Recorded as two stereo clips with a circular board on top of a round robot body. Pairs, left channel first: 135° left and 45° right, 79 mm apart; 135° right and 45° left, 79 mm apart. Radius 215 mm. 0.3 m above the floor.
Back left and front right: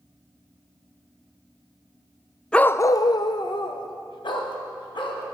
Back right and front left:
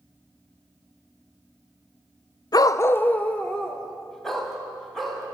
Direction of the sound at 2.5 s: 150° right.